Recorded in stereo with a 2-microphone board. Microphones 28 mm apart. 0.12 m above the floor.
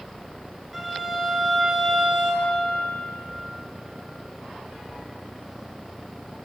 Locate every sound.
0.7 s a violin: 15° right (ahead or behind), 1.1 m